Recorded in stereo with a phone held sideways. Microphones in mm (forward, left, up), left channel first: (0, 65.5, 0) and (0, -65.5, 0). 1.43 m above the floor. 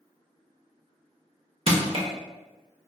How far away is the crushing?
About 0.5 m.